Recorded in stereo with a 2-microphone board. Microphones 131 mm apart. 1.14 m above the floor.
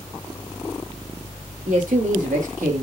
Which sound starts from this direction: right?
A man speaking, at 1.7 s.